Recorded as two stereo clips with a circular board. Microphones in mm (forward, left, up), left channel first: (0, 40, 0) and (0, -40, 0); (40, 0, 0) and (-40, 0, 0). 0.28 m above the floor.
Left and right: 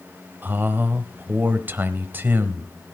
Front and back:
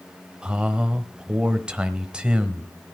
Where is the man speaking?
115° right, 1.1 m.